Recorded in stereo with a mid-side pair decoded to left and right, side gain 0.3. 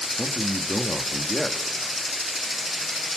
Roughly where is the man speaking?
Ahead.